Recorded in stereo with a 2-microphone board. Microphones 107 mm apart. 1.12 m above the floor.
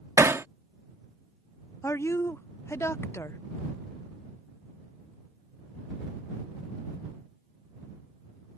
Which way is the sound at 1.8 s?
25° left (ahead or behind).